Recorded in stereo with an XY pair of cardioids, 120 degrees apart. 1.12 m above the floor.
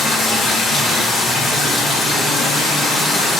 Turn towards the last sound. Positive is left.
turn(degrees=45)